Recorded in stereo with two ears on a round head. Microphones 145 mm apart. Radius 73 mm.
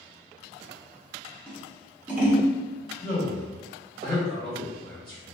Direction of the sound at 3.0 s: 50° right (ahead or behind).